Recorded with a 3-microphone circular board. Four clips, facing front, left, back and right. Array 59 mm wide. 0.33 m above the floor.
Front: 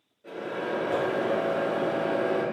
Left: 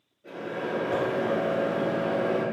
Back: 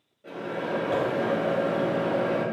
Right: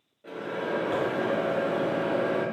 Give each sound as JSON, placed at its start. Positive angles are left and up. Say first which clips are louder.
{"t": 0.2, "sound": "a microwave", "louder": "right 1 dB, back 1 dB", "azimuth_deg": -115, "distance_m": 1.6}